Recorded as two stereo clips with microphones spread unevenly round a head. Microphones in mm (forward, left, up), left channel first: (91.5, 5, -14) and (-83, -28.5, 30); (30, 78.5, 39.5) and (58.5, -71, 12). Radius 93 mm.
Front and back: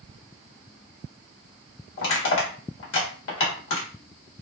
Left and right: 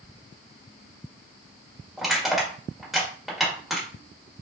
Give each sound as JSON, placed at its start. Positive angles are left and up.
{"t": 2.0, "sound": "crushing", "azimuth_deg": 20, "distance_m": 1.6}